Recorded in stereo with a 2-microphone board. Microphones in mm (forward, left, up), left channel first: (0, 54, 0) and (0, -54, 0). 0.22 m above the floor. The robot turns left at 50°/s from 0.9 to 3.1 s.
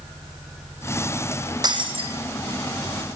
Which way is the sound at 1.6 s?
40° right (ahead or behind).